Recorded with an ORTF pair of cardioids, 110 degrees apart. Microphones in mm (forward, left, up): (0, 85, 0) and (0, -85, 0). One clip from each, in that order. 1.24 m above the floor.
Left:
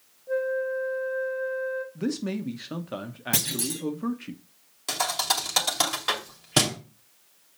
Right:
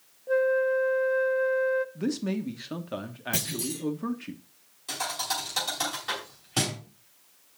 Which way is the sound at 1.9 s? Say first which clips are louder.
Even; 5° left.